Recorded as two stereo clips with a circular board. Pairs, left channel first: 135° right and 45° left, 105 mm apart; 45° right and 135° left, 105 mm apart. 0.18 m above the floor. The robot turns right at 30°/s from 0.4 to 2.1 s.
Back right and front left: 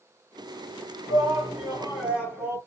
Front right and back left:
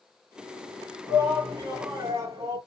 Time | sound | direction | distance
1.1 | a shout | 80° left | 1.5 m